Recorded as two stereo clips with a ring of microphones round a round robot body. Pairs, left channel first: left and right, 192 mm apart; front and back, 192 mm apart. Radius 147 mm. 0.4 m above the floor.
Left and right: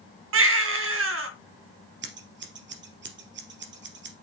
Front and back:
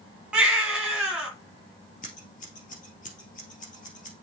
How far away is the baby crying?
About 2 m.